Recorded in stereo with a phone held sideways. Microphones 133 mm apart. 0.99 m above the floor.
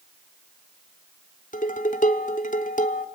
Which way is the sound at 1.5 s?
70° left (ahead or behind).